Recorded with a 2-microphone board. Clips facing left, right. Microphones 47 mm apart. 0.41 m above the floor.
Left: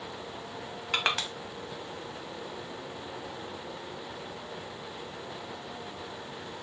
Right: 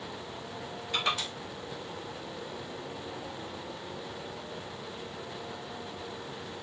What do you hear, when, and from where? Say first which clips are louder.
0.9 s crushing: left 2 dB; 80° left, 0.7 m